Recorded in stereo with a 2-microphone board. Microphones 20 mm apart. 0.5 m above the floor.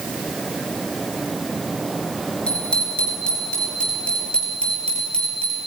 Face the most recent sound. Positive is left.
turn(degrees=80)